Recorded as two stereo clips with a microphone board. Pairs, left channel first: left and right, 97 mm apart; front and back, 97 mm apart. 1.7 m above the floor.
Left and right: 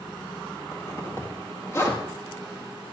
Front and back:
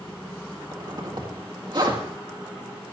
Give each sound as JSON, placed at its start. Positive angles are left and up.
{"t": 0.7, "sound": "a zipper", "azimuth_deg": 145, "distance_m": 2.0}